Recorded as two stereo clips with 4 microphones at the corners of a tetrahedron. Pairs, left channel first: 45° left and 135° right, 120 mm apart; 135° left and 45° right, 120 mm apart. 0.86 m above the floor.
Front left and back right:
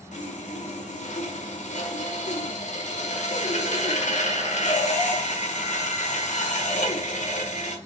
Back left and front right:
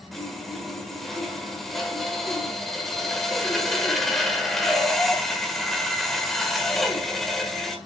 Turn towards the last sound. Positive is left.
turn(degrees=45)